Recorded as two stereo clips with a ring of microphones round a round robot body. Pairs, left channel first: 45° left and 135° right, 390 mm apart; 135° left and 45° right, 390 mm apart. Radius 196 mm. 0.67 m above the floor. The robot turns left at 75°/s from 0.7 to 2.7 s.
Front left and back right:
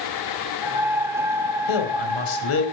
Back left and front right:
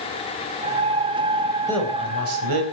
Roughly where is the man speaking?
Ahead left.